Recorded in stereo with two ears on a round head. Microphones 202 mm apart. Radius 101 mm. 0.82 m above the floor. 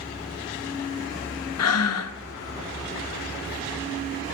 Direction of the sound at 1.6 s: 75° left (ahead or behind).